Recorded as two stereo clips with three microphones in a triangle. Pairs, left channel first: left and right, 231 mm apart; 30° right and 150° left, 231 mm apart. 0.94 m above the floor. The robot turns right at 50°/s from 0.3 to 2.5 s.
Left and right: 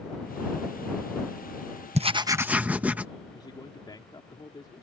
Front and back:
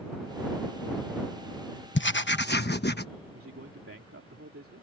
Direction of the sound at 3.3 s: 160° left.